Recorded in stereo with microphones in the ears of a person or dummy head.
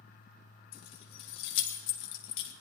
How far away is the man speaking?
No man speaking in this recording.